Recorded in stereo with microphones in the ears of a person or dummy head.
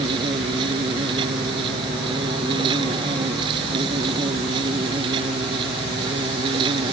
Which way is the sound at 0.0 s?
25° right (ahead or behind).